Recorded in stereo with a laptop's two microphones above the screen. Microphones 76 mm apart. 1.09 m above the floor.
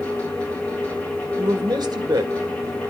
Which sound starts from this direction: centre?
A fan, at 0.0 s.